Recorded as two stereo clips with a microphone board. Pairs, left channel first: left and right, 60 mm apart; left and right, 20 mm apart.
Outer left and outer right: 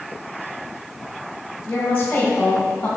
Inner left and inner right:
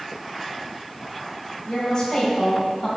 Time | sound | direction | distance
1.7 | a woman speaking | 25° left (ahead or behind) | 2.0 m